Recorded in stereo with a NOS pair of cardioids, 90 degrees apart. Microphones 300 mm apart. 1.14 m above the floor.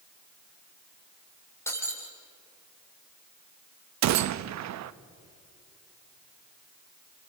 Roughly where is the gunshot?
Right.